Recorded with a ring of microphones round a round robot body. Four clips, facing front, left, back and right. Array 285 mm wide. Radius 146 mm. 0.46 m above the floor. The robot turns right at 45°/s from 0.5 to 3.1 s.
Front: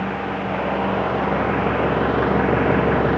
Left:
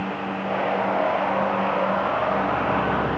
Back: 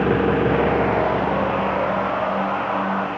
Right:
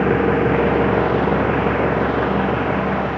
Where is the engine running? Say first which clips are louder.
Right 11 dB, back 7 dB; 120° right; by 3.2 s 5° right.